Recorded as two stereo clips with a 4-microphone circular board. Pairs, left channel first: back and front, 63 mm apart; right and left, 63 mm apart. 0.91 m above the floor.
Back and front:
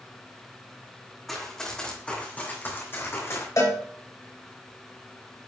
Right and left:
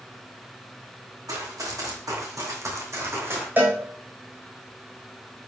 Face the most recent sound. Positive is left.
turn(degrees=150)